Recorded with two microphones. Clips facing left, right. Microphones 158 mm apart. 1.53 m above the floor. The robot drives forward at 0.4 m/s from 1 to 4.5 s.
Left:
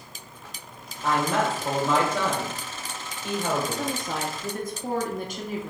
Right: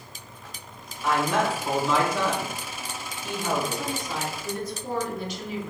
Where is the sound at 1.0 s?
40° left (ahead or behind), 1.7 m; by 3.9 s 85° left, 1.1 m.